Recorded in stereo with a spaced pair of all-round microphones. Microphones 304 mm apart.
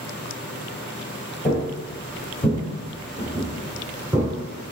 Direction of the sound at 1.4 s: 25° left (ahead or behind).